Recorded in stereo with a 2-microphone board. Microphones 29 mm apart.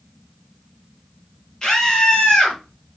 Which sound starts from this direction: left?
A scream, at 1.6 s.